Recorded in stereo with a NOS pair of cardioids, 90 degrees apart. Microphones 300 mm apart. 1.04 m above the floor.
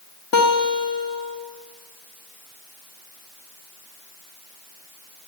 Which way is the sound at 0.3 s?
55° left.